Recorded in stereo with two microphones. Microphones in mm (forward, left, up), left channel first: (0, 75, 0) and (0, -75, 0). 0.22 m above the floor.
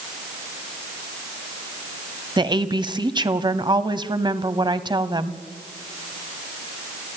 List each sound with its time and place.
2.4 s a woman speaking: 30° right (ahead or behind), 1.1 m